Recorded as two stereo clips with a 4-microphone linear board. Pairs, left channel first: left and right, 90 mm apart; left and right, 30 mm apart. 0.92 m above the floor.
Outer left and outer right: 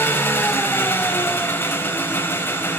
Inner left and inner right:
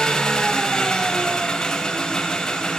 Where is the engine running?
25° left (ahead or behind), 1.0 m.